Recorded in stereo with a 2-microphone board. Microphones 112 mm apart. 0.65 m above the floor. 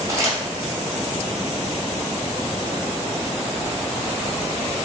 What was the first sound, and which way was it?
Crumpling, 25° right (ahead or behind).